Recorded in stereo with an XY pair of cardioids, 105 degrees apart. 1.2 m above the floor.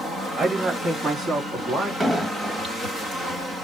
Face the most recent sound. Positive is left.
turn(degrees=-20)